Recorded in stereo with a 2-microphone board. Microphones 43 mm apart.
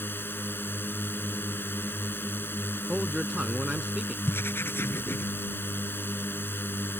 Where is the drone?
55° left (ahead or behind).